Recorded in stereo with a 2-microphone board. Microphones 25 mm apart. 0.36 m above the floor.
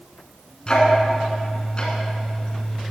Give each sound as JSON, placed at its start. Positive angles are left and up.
{"t": 0.7, "sound": "ticking", "side_deg": 35, "distance_m": 2.5}